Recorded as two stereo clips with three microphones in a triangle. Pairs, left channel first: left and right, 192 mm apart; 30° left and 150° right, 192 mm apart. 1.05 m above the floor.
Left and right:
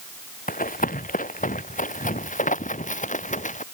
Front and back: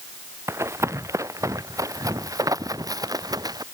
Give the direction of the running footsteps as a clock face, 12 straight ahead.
8 o'clock.